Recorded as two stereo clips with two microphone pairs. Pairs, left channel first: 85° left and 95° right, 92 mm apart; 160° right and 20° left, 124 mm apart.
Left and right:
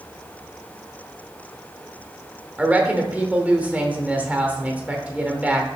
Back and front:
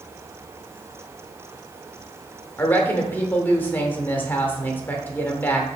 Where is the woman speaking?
120° right, 0.8 m.